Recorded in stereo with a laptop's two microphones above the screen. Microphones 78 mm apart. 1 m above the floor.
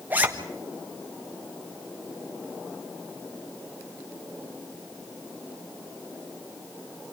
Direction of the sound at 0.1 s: 20° right (ahead or behind).